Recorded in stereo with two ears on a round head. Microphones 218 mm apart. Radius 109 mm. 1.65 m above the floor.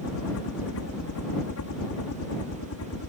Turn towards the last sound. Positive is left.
turn(degrees=65)  # may be behind; listen again after turning